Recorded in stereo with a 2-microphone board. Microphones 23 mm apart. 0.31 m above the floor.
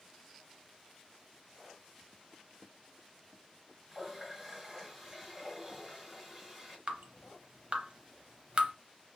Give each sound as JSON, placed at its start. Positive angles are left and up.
{"t": 3.9, "sound": "a running tap", "side_deg": -15, "distance_m": 1.7}
{"t": 6.9, "sound": "dripping", "side_deg": -50, "distance_m": 0.7}